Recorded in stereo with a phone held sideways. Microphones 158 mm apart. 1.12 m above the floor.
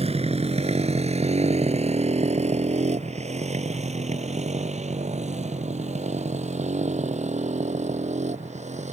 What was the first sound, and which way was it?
A motorcycle, 40° right (ahead or behind).